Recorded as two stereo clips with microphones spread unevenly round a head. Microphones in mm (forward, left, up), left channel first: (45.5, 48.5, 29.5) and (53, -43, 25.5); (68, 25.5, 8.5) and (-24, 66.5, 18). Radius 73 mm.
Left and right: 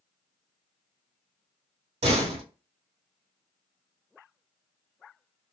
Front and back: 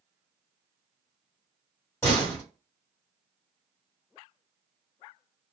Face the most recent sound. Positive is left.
turn(degrees=-100)